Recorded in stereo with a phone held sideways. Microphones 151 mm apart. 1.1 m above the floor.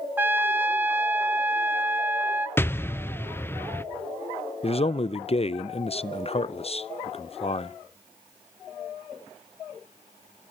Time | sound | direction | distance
0.2 | a trumpet | 10° right (ahead or behind) | 0.9 m
2.6 | an explosion | 15° left (ahead or behind) | 0.5 m
4.6 | a man speaking | 40° left (ahead or behind) | 0.5 m